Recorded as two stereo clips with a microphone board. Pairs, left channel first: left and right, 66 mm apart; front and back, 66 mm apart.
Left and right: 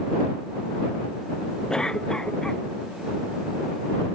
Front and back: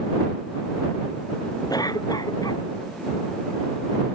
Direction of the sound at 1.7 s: 10° left.